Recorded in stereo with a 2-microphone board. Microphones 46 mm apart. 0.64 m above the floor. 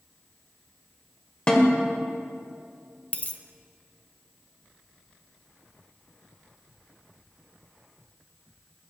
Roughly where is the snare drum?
Left.